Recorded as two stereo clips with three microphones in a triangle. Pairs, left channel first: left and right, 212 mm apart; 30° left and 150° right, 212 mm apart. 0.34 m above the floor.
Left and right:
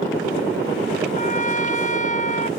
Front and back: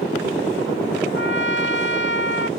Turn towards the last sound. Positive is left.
turn(degrees=40)